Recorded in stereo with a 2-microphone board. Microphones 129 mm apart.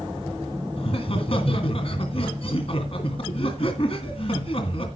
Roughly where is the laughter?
Left.